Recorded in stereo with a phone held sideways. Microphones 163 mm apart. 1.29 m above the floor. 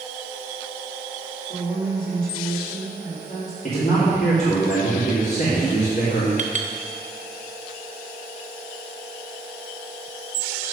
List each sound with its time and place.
1.5 s a woman speaking: 80° left, 4 m
3.6 s a man speaking: 75° left (ahead or behind), 2.5 m
6.4 s a clink: 50° right (ahead or behind), 0.9 m